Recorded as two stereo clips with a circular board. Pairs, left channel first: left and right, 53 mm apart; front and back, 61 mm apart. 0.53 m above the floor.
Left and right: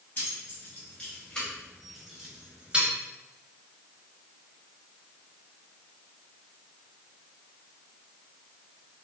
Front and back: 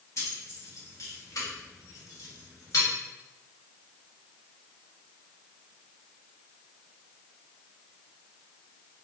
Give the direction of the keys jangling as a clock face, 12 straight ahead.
11 o'clock.